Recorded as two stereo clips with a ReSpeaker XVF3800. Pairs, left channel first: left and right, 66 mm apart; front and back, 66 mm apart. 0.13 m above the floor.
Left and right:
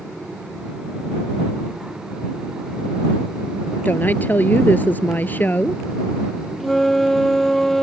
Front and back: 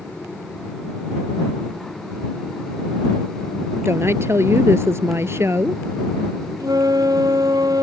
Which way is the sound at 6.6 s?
175° left.